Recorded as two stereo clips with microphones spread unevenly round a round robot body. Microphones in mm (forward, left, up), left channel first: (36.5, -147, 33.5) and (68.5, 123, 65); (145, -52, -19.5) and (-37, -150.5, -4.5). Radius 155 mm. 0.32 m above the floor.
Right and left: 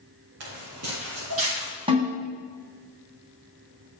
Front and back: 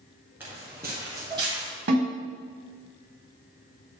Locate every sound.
0.4 s footsteps: 125° left, 4 m; by 1.7 s 135° left, 3.5 m
1.9 s a snare drum: 155° left, 4 m